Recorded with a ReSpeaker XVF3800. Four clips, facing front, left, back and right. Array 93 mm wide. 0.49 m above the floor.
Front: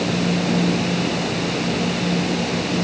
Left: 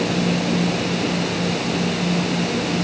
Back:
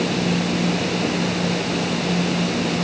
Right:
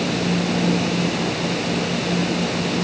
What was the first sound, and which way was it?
Only background noise.